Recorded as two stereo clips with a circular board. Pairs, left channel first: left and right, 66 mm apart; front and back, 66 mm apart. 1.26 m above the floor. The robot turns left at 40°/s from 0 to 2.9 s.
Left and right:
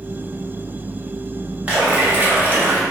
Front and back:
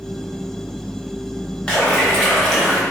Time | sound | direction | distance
1.7 | a splash | 50° right | 0.7 m